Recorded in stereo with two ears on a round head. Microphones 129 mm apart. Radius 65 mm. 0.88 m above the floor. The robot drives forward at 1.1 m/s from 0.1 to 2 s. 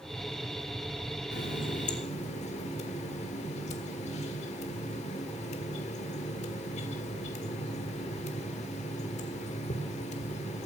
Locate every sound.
1.3 s a running tap: 85° left, 1.2 m; by 10.7 s 50° left (ahead or behind), 1.5 m